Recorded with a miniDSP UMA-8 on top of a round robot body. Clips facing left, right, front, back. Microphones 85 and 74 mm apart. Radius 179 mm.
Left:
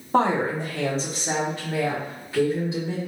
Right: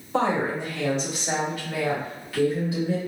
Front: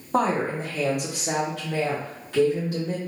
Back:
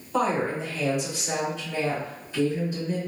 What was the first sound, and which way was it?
A woman speaking, 50° left.